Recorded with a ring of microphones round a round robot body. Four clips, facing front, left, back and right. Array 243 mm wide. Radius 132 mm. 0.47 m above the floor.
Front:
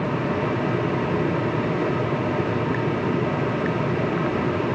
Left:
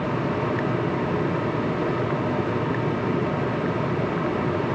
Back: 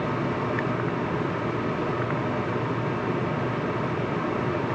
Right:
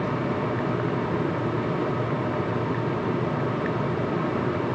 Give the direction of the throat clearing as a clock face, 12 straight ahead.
No throat clearing in this recording.